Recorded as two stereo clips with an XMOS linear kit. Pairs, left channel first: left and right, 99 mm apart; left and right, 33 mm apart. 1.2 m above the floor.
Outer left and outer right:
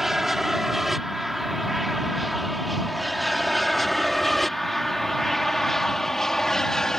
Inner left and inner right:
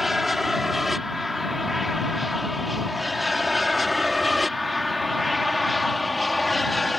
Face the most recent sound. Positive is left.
turn(degrees=5)  # may be behind; listen again after turning